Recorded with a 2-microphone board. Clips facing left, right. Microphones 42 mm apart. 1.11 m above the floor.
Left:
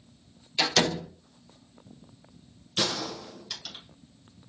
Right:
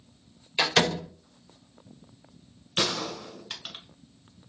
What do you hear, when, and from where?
0.6 s a door slam: 25° right (ahead or behind), 1.3 m
2.8 s a gunshot: 35° right (ahead or behind), 1.5 m